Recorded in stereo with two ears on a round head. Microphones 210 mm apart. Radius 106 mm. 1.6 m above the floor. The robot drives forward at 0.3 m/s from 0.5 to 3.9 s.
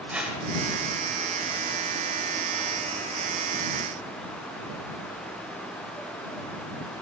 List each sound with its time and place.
0.1 s a whoosh: 5° right (ahead or behind), 2 m